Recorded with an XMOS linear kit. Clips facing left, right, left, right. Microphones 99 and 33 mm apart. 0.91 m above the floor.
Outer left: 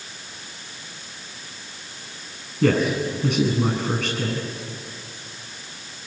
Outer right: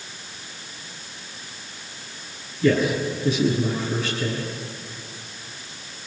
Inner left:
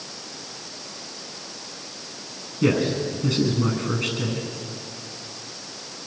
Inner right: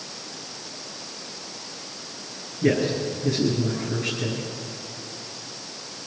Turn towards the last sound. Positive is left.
turn(degrees=85)